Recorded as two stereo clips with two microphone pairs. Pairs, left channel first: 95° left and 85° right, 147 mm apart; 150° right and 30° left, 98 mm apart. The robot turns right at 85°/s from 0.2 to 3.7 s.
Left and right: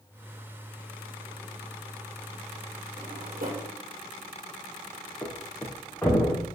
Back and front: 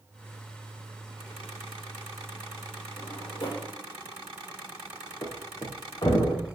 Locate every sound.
3.0 s a drawer: 145° right, 4 m; by 3.7 s 85° right, 4 m
5.2 s a thud: 170° left, 3 m